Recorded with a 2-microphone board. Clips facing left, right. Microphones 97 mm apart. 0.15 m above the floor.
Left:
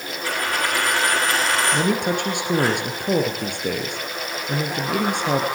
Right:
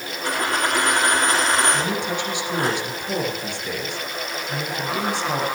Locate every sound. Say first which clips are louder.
0.2 s a dropped coin: right 2 dB; 20° right (ahead or behind), 4 m
1.7 s a man speaking: left 3 dB; 55° left (ahead or behind), 2.5 m